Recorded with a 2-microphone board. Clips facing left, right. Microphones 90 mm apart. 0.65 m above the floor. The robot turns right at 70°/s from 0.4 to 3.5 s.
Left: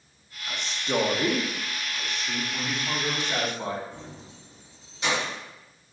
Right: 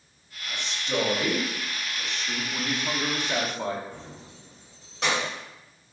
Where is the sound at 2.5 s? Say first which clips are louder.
Right 1 dB; 125° right, 0.9 m; by 3.8 s 55° right, 0.9 m.